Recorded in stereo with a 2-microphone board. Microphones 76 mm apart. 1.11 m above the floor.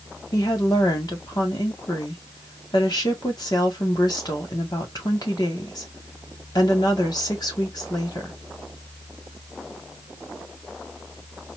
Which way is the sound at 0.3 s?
60° left (ahead or behind).